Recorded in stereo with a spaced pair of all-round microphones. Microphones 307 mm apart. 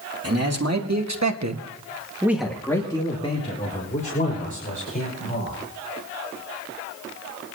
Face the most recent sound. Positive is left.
turn(degrees=30)  # may be behind; listen again after turning